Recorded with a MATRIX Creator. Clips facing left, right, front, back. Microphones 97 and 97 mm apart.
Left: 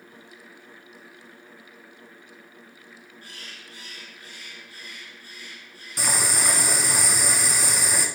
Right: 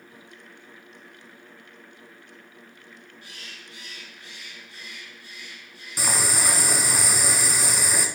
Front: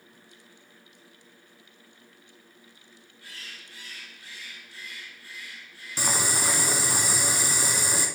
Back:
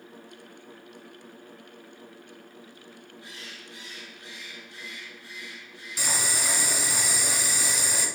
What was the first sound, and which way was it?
A bird, 120° left.